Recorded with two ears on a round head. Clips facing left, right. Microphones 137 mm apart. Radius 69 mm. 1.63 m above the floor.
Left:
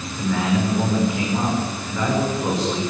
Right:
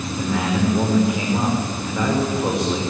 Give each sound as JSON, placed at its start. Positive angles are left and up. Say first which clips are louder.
{"t": 0.2, "sound": "a man speaking", "louder": "left 1 dB", "side_deg": -10, "distance_m": 6.0}